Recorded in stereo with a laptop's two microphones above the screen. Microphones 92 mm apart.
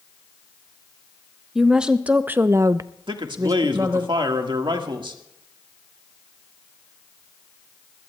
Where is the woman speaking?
5° right (ahead or behind), 1.1 m; by 4.1 s 30° right (ahead or behind), 1.1 m.